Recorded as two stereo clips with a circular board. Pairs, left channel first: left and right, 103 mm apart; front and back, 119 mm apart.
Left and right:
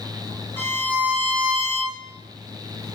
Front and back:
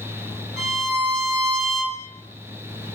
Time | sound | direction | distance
0.6 | a violin | 40° left | 1.8 m